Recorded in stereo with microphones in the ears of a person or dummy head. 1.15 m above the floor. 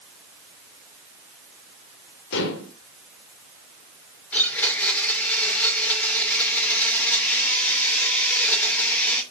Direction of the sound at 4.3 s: 5° left (ahead or behind).